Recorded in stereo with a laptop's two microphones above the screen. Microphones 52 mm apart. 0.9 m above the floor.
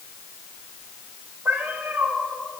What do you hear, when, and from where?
1.4 s a cat meowing: 50° right (ahead or behind), 6 m